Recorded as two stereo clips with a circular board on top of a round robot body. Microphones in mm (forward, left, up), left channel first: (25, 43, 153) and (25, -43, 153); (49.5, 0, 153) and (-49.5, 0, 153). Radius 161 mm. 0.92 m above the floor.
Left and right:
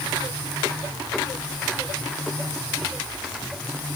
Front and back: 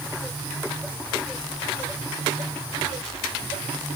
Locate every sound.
Only background noise.